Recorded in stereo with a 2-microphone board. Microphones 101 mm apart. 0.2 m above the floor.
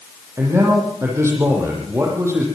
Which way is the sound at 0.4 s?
25° right (ahead or behind).